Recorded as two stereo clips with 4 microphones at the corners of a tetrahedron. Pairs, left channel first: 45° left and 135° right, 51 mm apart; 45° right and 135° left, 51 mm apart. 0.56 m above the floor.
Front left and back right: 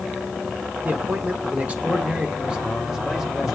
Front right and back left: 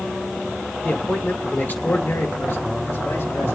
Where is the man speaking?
100° right, 2.0 m; by 3.5 s 50° right, 2 m.